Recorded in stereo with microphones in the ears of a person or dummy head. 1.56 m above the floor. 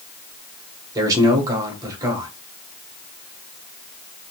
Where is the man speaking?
25° right (ahead or behind), 1.0 m.